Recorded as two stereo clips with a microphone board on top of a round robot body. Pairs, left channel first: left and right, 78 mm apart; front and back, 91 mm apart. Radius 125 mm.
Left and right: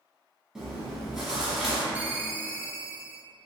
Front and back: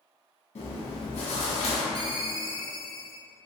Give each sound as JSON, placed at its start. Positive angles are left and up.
{"t": 0.6, "sound": "chewing", "azimuth_deg": -5, "distance_m": 1.0}
{"t": 1.9, "sound": "a ringtone", "azimuth_deg": -155, "distance_m": 0.7}